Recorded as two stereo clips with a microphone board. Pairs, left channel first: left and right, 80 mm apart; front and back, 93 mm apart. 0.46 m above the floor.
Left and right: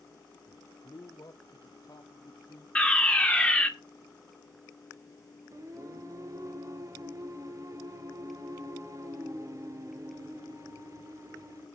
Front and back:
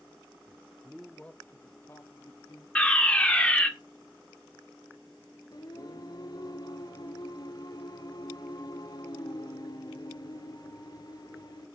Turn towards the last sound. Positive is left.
turn(degrees=-45)